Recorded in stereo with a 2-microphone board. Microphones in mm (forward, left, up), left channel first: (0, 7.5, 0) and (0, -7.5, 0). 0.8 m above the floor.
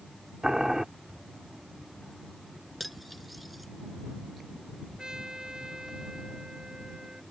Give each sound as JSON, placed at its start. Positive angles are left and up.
{"t": 0.4, "sound": "boiling", "side_deg": -40}
{"t": 2.8, "sound": "cutlery clinking", "side_deg": -5}
{"t": 5.0, "sound": "a trumpet", "side_deg": -50}